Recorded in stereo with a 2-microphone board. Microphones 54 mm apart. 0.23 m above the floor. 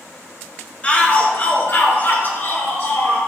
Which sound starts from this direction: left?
A shout, at 0.8 s.